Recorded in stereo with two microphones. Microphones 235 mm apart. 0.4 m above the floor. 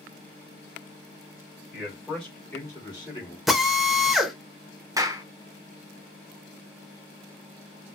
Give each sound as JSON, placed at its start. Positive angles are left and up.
{"t": 1.7, "sound": "a man speaking", "side_deg": -5, "distance_m": 1.8}
{"t": 3.5, "sound": "a drill", "side_deg": 0, "distance_m": 0.5}
{"t": 5.0, "sound": "a clap", "side_deg": -15, "distance_m": 0.5}